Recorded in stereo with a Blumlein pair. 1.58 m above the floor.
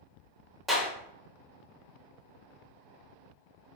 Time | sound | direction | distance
0.7 | a clap | straight ahead | 1.2 m